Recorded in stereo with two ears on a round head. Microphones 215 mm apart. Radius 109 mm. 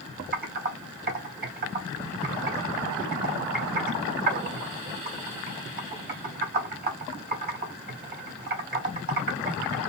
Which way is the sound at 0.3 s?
40° right (ahead or behind).